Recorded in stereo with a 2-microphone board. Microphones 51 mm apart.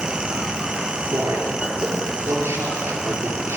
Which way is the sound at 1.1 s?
75° right (ahead or behind).